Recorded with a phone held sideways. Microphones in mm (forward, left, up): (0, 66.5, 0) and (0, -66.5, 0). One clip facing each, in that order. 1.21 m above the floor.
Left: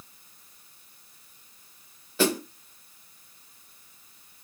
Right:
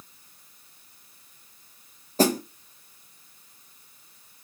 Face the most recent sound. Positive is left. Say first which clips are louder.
# right 3 dB
turn(degrees=-40)  # may be behind; listen again after turning